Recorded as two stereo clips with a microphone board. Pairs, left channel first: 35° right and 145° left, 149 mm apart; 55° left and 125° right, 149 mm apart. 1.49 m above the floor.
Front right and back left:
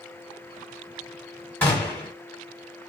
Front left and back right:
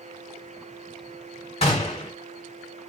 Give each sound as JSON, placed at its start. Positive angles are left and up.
{"t": 1.6, "sound": "a gunshot", "azimuth_deg": 40, "distance_m": 1.4}